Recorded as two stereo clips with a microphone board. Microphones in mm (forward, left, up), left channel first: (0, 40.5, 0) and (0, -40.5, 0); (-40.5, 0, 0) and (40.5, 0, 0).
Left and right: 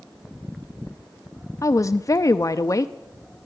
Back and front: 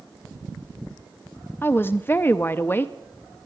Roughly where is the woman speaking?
Behind left.